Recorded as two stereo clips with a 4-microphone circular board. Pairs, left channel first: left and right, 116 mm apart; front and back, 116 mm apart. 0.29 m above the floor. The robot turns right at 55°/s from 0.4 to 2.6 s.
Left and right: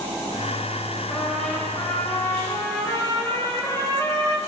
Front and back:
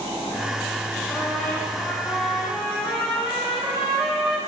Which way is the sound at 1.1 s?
5° left.